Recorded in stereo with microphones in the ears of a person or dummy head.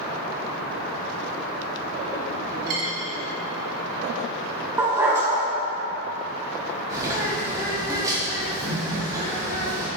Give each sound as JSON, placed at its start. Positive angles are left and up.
{"t": 2.7, "sound": "a dropped coin", "side_deg": -45, "distance_m": 1.9}
{"t": 4.8, "sound": "a dog barking", "side_deg": -10, "distance_m": 1.9}
{"t": 6.9, "sound": "a bird", "side_deg": -15, "distance_m": 1.8}